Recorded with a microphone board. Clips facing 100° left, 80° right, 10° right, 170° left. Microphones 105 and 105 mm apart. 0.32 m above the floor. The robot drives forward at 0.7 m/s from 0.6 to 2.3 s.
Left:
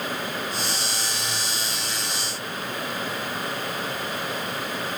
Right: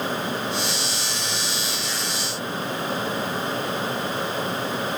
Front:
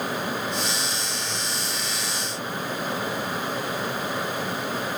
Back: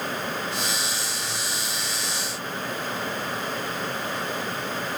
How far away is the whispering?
I don't hear whispering.